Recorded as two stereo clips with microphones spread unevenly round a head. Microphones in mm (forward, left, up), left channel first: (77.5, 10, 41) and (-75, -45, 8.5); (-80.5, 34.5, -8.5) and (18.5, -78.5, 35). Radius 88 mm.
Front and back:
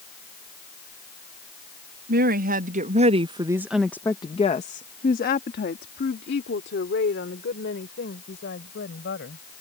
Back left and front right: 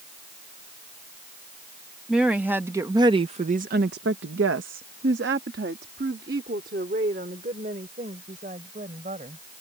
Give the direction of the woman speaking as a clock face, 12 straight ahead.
5 o'clock.